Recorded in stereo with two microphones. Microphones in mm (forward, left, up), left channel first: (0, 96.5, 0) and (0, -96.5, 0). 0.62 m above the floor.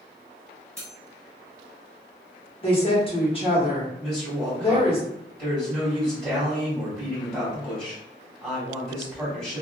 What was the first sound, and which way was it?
Cutlery clinking, 15° right (ahead or behind).